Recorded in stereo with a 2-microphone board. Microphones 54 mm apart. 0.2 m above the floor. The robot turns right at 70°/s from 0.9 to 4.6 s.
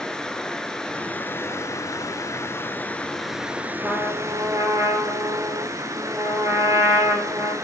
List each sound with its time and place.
0.0 s running water: 15° left, 0.8 m; by 7.6 s 85° right, 0.8 m
3.8 s a trumpet: 140° right, 2.5 m; by 7.5 s 85° right, 2.5 m